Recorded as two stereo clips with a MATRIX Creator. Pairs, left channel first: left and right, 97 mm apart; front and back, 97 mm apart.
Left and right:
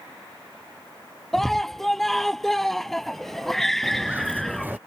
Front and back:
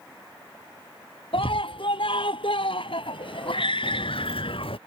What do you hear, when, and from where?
1.3 s a scream: 5° left
3.8 s footsteps: 20° right